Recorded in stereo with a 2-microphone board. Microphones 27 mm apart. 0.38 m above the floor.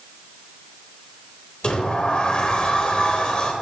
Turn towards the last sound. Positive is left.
turn(degrees=40)  # may be behind; listen again after turning